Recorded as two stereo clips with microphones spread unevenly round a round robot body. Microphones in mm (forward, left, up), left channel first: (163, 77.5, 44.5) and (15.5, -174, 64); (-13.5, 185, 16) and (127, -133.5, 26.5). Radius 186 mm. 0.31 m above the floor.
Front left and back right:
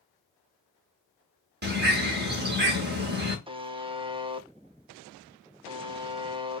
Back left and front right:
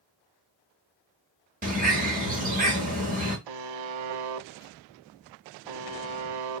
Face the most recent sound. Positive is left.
turn(degrees=-45)